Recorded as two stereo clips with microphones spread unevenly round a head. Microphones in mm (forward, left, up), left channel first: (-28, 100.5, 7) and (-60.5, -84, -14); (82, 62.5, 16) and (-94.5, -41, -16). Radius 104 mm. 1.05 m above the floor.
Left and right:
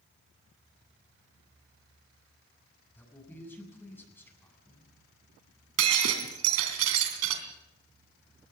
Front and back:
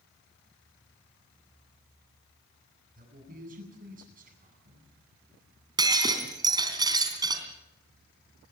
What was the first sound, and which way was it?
A man speaking, 160° left.